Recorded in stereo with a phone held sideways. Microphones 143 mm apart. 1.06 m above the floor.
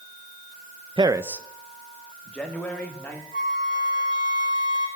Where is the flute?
75° left (ahead or behind), 3.5 m.